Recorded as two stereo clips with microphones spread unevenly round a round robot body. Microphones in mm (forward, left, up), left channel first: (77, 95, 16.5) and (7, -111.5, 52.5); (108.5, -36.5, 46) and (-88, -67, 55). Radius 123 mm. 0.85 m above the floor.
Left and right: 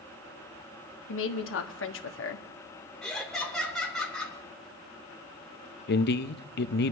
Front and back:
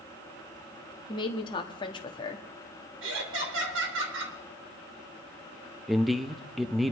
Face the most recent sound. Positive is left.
turn(degrees=100)